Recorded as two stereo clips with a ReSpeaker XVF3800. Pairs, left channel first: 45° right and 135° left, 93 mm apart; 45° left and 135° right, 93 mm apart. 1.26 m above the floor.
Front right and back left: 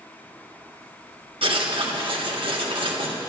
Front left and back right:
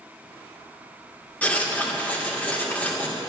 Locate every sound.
1.4 s writing: 120° left, 2 m